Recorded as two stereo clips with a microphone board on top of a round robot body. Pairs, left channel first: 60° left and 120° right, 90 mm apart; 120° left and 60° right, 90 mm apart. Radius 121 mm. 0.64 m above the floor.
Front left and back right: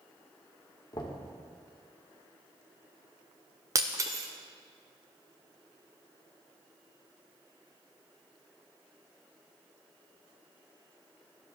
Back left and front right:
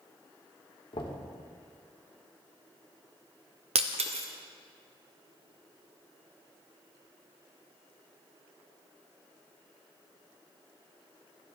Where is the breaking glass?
60° right, 0.5 m.